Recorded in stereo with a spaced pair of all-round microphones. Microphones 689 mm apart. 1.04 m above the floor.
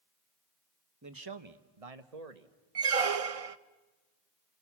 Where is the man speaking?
25° right (ahead or behind), 1.1 m; by 2.5 s 65° right (ahead or behind), 1.7 m.